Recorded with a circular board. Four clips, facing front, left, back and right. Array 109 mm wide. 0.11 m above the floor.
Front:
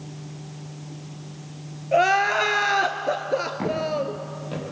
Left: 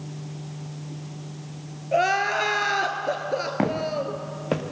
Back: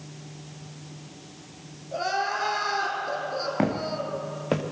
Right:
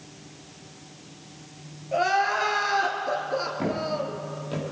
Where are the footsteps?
130° left, 3 m; by 4.6 s 135° left, 2.5 m.